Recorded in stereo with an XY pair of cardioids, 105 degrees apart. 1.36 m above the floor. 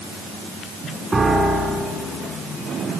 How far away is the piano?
About 5 m.